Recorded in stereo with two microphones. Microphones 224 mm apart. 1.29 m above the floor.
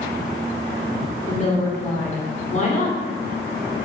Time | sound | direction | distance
1.3 | a woman speaking | 35° left (ahead or behind) | 1.1 m